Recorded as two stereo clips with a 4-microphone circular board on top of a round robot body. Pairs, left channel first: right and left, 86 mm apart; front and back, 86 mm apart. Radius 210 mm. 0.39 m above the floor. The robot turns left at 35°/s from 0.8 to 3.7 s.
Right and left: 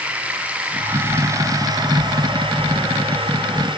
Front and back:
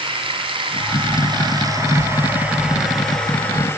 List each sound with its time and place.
0.0 s running water: 165° left, 2.5 m; by 3.8 s 65° left, 2.5 m